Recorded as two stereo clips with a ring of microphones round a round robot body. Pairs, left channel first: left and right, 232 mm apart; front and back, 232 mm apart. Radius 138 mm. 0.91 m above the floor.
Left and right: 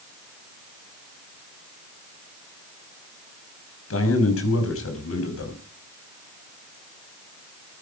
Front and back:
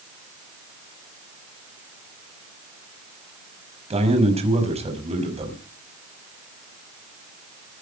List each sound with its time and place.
3.9 s a man speaking: 115° left, 5 m